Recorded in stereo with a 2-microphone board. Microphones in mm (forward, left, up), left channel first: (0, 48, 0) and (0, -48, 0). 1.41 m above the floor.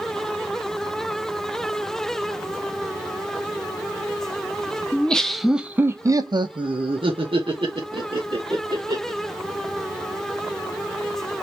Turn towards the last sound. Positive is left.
turn(degrees=-60)  # may be behind; listen again after turning